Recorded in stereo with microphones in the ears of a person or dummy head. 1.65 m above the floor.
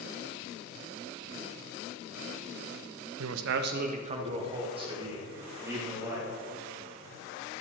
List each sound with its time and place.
3.2 s a man speaking: 85° right, 0.5 m; by 6.3 s 20° right (ahead or behind), 3 m